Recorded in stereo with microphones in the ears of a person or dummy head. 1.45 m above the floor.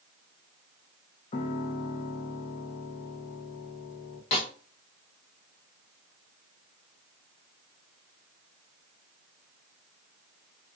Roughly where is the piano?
Left.